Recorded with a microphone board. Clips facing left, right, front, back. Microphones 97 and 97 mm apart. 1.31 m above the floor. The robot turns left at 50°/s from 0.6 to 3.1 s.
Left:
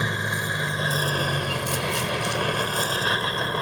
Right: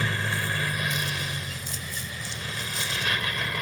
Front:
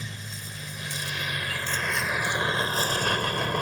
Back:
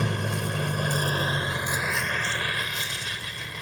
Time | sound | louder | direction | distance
0.0 | a vehicle | left 2 dB, back 12 dB | 160° left | ?